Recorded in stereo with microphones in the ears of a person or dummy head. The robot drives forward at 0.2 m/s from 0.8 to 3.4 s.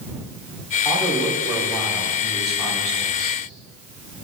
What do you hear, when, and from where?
0.8 s a man speaking: centre (ahead or behind), 3 m